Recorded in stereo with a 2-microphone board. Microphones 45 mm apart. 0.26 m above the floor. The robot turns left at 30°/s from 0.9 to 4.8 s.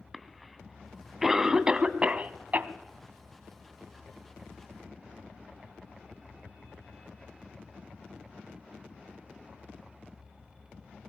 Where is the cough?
Centre (ahead or behind), 2.5 m; by 2.7 s 40° right (ahead or behind), 2.5 m.